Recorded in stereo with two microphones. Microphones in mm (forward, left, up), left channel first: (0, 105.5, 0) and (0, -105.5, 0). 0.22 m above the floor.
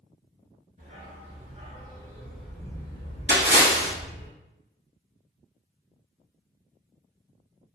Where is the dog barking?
40° right (ahead or behind), 1.3 m; by 4.3 s 60° left (ahead or behind), 1.0 m.